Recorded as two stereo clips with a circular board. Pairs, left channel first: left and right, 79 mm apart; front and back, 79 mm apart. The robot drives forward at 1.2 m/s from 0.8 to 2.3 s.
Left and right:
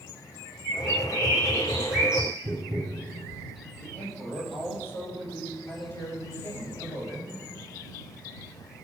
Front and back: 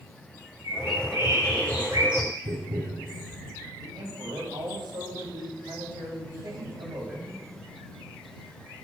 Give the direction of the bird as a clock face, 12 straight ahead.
5 o'clock.